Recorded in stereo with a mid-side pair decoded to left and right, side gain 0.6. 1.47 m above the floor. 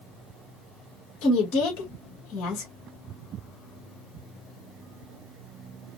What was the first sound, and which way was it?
A woman speaking, 65° left.